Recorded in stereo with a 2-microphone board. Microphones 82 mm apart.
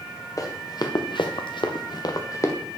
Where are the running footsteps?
45° left (ahead or behind), 1.7 m; by 2.5 s 40° left (ahead or behind), 1.7 m.